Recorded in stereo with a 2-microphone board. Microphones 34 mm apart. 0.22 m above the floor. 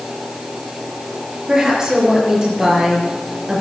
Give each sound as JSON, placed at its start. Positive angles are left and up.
{"t": 1.5, "sound": "a woman speaking", "side_deg": -20, "distance_m": 5.0}